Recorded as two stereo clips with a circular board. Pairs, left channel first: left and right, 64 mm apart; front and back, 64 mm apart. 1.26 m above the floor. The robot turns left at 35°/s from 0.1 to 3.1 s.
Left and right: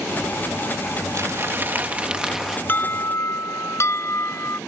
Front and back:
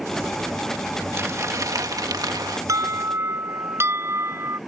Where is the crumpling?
130° right; by 2.6 s straight behind.